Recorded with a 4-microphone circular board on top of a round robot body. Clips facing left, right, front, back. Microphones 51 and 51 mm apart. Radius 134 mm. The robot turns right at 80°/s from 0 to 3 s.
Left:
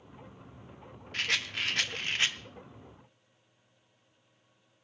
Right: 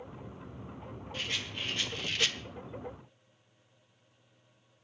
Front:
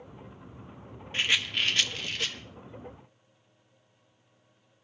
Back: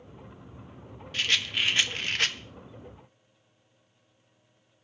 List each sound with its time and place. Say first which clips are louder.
1.1 s a rattle: left 6 dB, even; 60° left, 1.0 m; by 2.4 s 160° left, 1.0 m